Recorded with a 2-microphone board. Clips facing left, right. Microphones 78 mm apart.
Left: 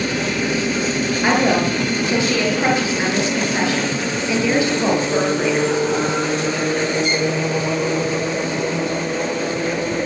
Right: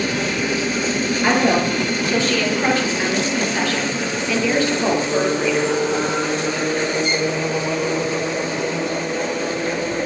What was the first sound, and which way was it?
A woman speaking, 15° left (ahead or behind).